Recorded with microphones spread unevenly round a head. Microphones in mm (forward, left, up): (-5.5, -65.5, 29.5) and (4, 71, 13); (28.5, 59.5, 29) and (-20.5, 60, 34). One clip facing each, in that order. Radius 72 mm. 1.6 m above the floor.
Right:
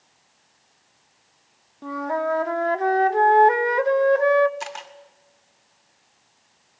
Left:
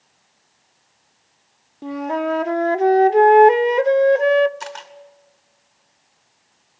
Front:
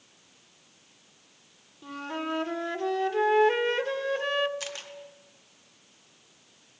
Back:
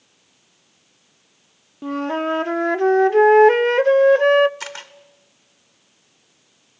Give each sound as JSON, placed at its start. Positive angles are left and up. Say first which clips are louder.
{"t": 1.8, "sound": "a flute", "louder": "left 2 dB, back 11 dB", "azimuth_deg": 150, "distance_m": 0.7}
{"t": 4.6, "sound": "a camera shutter", "louder": "left 1 dB, back 5 dB", "azimuth_deg": 180, "distance_m": 2.0}